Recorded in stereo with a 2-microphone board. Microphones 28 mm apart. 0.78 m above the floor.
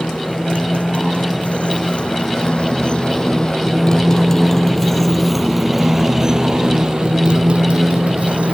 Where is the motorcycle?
60° left (ahead or behind); by 8.5 s 55° right (ahead or behind).